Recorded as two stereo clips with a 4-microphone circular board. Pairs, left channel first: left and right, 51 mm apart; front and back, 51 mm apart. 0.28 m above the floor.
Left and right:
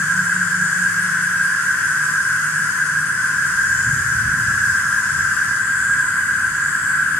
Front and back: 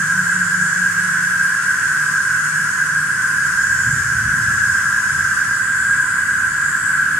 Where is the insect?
70° left, 1.8 m.